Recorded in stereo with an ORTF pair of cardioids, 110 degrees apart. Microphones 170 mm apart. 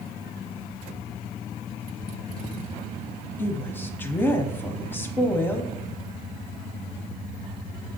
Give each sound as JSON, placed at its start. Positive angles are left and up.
{"t": 3.4, "sound": "a woman speaking", "azimuth_deg": 10, "distance_m": 0.7}